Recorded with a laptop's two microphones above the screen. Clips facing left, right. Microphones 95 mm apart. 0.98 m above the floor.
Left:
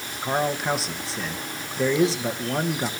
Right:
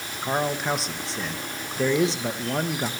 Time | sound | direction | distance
0.2 | a man speaking | centre (ahead or behind) | 1.2 m